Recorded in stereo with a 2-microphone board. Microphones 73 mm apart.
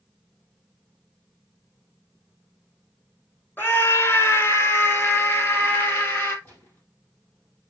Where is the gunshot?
30° left (ahead or behind), 3.5 m.